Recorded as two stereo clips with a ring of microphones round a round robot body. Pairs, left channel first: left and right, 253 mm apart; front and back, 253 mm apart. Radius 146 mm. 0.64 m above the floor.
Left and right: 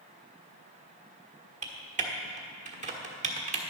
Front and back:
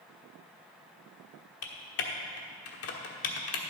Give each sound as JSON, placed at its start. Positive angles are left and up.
{"t": 1.6, "sound": "typing on a keyboard", "azimuth_deg": -30, "distance_m": 1.3}